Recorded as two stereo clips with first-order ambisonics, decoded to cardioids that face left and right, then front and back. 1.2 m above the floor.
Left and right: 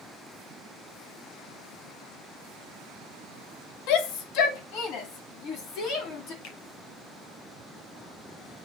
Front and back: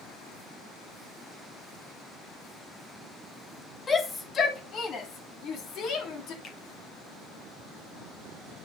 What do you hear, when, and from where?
3.9 s a shout: 75° left, 1.8 m; by 6.3 s 45° left, 3.5 m
6.4 s a finger snap: 60° left, 3.5 m